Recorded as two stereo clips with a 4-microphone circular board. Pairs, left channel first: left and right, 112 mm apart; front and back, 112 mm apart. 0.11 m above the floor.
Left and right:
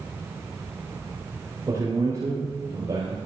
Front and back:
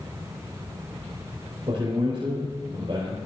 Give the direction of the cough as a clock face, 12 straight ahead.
No cough in this recording.